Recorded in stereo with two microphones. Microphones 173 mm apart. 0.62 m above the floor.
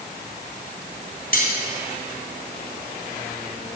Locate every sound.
1.3 s cutlery clinking: 60° left (ahead or behind), 3 m